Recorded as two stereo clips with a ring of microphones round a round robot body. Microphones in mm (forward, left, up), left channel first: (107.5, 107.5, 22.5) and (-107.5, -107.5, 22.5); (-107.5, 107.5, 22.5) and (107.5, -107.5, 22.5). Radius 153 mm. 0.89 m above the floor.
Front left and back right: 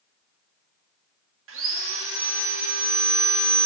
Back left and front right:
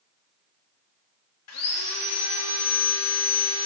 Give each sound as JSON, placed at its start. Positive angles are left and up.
{"t": 1.5, "sound": "sawing", "azimuth_deg": 175, "distance_m": 1.3}